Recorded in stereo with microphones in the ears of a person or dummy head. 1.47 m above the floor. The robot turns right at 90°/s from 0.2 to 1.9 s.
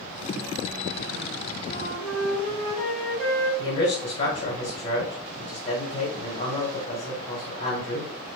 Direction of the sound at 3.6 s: 35° left (ahead or behind).